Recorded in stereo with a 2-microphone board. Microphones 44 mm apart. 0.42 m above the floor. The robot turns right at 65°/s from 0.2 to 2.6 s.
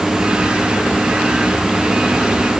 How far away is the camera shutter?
I don't hear a camera shutter.